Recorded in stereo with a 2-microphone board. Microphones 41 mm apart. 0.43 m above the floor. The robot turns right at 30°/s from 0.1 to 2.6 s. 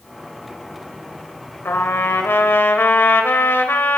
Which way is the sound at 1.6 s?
70° left (ahead or behind).